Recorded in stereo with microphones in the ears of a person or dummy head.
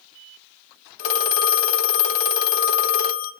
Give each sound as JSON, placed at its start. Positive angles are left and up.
{"t": 1.0, "sound": "a phone ringing", "side_deg": 45, "distance_m": 0.9}